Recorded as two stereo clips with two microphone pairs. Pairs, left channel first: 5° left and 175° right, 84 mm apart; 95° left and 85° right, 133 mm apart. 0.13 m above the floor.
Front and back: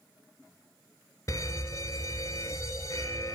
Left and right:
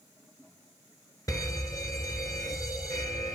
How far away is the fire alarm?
About 3 m.